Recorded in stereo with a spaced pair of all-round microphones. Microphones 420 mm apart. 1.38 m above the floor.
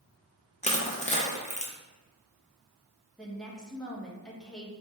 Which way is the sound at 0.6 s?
15° left (ahead or behind).